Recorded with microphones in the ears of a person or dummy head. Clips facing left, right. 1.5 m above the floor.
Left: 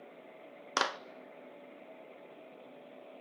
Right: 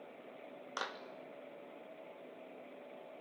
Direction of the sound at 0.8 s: 75° left (ahead or behind).